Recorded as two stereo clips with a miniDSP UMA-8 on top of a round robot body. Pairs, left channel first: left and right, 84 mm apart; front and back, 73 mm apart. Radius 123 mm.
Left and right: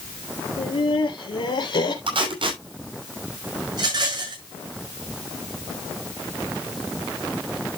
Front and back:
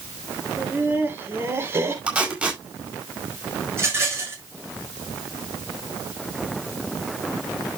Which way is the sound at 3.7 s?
125° right.